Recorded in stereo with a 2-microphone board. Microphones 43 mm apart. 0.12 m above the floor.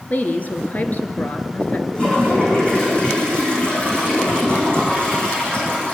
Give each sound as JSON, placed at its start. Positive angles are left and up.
{"t": 0.1, "sound": "a woman speaking", "side_deg": 40, "distance_m": 1.9}
{"t": 1.9, "sound": "a toilet flushing", "side_deg": 25, "distance_m": 6.0}